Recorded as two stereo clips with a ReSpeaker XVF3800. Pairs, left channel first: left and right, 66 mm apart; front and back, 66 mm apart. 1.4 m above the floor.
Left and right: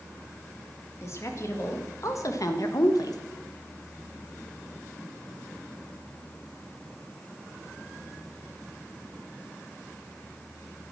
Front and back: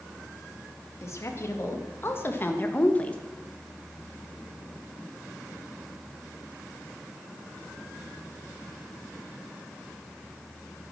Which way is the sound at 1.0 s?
45° left.